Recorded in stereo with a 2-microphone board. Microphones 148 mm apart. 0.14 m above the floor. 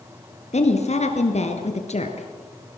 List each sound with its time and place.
0.5 s a woman speaking: 50° left (ahead or behind), 2.5 m